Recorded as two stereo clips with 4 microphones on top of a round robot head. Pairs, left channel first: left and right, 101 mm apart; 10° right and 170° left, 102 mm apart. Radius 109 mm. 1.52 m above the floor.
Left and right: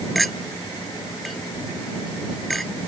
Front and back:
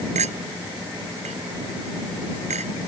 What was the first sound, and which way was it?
A clink, straight behind.